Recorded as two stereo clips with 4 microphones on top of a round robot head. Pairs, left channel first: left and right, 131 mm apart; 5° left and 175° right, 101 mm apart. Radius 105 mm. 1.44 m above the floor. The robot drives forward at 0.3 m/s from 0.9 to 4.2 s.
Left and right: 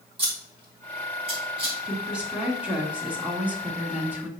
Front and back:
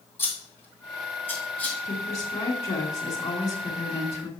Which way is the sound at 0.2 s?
45° right.